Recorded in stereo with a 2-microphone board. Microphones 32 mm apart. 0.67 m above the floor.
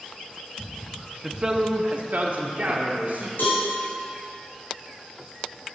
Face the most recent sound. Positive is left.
turn(degrees=85)